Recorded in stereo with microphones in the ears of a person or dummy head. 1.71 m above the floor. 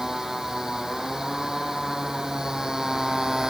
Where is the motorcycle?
Centre (ahead or behind); by 3.5 s 5° right (ahead or behind).